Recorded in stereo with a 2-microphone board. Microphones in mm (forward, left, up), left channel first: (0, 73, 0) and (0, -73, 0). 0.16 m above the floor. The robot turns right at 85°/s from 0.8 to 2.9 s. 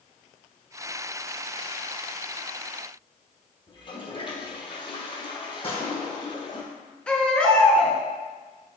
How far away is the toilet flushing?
About 1.4 m.